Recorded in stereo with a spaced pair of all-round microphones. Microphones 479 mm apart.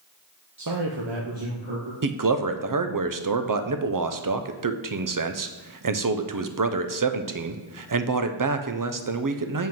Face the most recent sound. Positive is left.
turn(degrees=-45)  # may be behind; listen again after turning